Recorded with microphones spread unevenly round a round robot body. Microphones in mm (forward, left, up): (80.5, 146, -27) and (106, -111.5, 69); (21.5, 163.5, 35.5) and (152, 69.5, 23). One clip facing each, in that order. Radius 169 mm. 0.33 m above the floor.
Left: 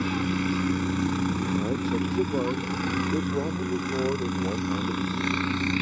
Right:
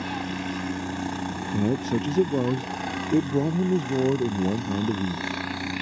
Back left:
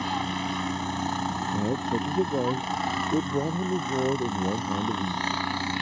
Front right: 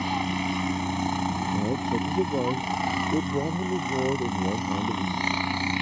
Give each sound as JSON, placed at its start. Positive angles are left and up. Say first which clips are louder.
{"t": 0.0, "sound": "a helicopter", "louder": "left 5 dB, front right 2 dB", "azimuth_deg": 40}
{"t": 1.5, "sound": "a man speaking", "louder": "right 6 dB, back left 1 dB", "azimuth_deg": -130}